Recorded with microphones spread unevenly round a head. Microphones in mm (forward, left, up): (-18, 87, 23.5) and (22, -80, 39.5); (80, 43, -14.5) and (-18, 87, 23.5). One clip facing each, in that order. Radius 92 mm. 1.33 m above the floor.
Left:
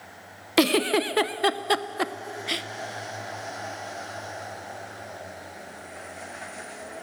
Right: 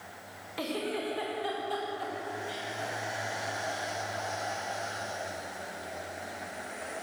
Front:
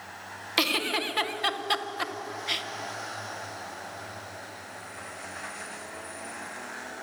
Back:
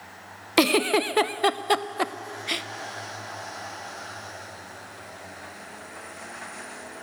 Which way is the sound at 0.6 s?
115° left.